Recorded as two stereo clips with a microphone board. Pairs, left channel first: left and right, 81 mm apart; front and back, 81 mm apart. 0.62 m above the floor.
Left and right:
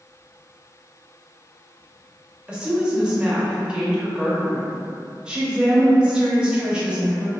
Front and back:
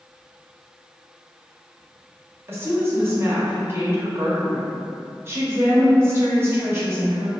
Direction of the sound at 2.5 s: 160° right.